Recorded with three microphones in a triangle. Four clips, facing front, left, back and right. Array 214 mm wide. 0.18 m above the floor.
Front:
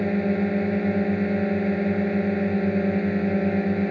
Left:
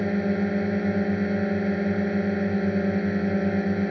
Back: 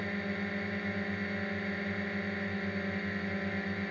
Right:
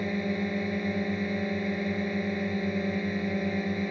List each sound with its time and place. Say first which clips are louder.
0.0 s a drone: left 5 dB, front 13 dB; 20° left